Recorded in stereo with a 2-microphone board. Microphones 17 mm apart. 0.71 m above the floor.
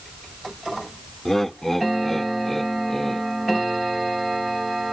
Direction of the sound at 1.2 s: 15° left (ahead or behind).